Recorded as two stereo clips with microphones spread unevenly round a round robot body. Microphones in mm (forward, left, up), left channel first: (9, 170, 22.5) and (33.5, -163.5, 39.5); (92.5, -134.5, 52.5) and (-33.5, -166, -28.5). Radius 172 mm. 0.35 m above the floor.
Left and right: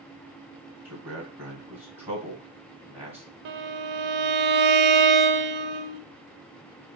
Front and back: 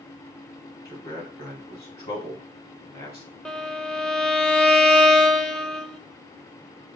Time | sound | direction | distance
0.8 | a man speaking | straight ahead | 3 m
3.5 | a violin | 95° right | 0.7 m